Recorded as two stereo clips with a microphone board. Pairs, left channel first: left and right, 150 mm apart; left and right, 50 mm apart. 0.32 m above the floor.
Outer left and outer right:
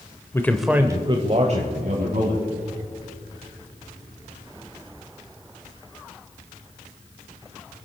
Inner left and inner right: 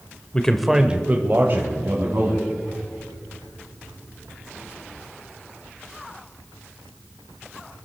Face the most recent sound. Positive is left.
turn(degrees=-65)  # may be behind; listen again after turning